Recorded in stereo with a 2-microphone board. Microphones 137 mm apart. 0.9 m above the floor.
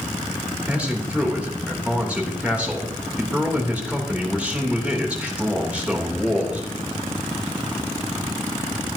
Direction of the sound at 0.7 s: 10° right (ahead or behind).